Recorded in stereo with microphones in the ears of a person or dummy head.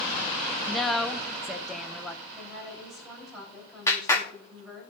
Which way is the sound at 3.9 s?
20° left (ahead or behind).